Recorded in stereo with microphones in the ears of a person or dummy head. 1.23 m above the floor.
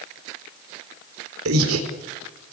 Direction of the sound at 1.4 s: 85° right.